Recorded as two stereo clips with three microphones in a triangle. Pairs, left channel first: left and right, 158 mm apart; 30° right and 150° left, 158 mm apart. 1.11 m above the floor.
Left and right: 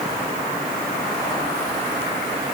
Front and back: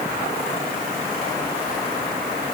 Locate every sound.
Only background noise.